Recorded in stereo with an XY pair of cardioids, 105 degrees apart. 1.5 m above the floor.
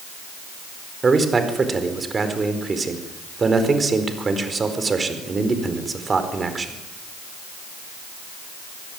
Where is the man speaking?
30° right, 4.5 m.